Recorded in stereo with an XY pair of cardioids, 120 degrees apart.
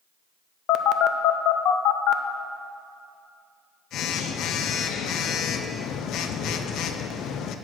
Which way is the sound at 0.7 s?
70° left.